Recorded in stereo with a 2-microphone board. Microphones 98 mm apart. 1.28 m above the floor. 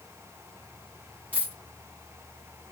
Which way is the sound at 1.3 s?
15° left (ahead or behind).